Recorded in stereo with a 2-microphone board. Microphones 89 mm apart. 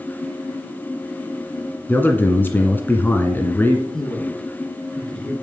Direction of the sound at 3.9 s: 10° left (ahead or behind).